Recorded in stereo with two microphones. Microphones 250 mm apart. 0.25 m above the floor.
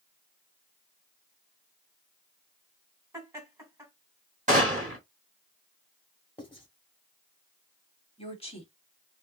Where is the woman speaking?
25° left (ahead or behind), 1.3 m.